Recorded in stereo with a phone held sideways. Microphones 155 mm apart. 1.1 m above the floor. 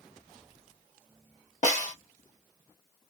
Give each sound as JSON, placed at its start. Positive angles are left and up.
{"t": 1.6, "sound": "a snare drum", "side_deg": 60, "distance_m": 1.4}